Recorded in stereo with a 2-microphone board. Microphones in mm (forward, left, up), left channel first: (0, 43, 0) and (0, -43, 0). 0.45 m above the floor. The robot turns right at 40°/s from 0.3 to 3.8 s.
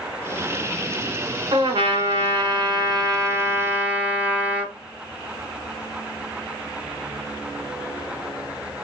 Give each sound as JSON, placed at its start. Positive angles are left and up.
{"t": 1.5, "sound": "a trumpet", "azimuth_deg": -105, "distance_m": 1.3}